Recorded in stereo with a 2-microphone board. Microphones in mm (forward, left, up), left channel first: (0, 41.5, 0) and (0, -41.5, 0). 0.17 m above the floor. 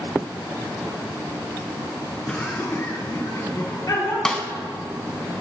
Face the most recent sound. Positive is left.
turn(degrees=10)  # may be behind; listen again after turning